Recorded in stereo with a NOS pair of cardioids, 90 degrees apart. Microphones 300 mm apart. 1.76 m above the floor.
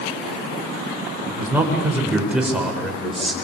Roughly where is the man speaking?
Ahead.